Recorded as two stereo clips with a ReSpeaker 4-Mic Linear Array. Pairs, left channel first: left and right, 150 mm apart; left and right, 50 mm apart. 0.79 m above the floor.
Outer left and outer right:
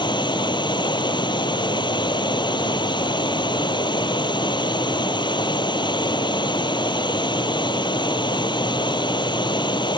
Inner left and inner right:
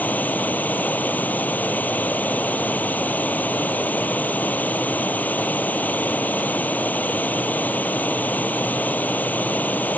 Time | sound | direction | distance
0.0 | running water | 30° left (ahead or behind) | ?